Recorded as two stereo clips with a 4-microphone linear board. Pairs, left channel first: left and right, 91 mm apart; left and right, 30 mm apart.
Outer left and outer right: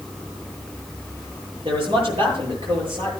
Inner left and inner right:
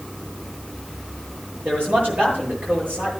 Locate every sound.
1.6 s a man speaking: 80° right, 9 m